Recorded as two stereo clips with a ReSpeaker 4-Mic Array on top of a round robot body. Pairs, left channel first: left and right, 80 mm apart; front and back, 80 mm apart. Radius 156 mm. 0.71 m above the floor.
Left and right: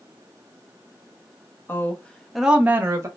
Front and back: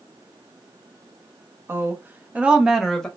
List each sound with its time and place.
1.7 s a woman speaking: 135° left, 1.0 m; by 3.1 s 80° right, 0.9 m